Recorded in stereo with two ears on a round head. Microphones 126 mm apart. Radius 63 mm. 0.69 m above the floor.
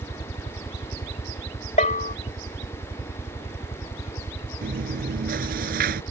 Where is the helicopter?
45° left (ahead or behind); by 6.1 s 35° left (ahead or behind).